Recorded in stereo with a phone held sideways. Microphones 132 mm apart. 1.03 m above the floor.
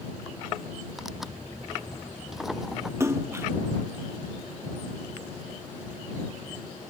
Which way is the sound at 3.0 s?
20° right (ahead or behind).